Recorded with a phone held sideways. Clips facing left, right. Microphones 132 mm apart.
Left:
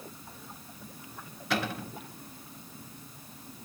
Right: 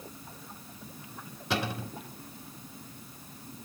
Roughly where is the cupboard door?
Right.